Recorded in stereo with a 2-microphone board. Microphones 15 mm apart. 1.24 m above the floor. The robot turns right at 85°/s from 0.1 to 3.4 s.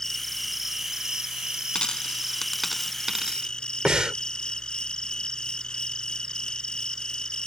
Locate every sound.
0.0 s an insect: 150° left; by 7.5 s 70° left
1.8 s a dropped coin: 85° left; by 3.5 s 50° right (ahead or behind)
3.9 s breathing: 75° right (ahead or behind)